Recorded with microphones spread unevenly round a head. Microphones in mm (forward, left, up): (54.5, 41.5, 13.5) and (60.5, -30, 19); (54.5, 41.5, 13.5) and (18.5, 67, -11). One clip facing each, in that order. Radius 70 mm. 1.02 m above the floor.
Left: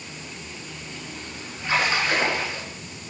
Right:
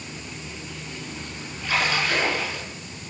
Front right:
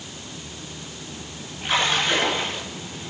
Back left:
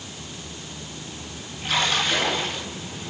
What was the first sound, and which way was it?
A splash, 25° left.